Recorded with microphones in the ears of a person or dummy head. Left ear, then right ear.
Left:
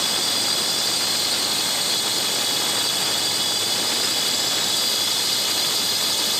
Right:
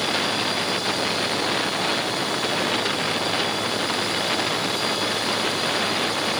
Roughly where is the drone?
Left.